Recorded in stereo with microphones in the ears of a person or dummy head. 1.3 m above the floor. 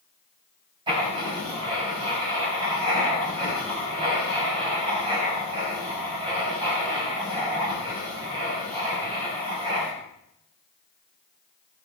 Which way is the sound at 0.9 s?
30° right (ahead or behind).